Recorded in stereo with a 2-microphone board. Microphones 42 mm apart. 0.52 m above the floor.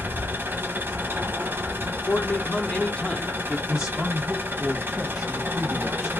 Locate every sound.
0.0 s an engine running: 65° right (ahead or behind), 0.9 m
2.1 s a man speaking: 35° left (ahead or behind), 0.8 m
3.7 s a man speaking: 10° right (ahead or behind), 1.0 m